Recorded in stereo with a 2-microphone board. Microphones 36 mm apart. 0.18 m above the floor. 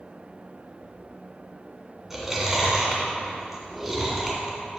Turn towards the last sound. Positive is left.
turn(degrees=-5)  # may be behind; listen again after turning